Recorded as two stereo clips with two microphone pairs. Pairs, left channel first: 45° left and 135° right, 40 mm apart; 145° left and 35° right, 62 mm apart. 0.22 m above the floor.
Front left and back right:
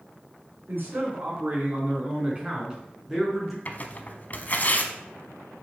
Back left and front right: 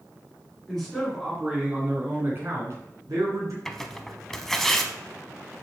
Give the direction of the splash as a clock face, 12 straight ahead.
I don't hear a splash.